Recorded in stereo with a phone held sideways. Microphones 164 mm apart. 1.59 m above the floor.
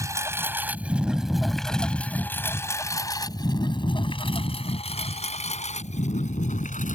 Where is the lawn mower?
20° right (ahead or behind); by 6.9 s 50° left (ahead or behind).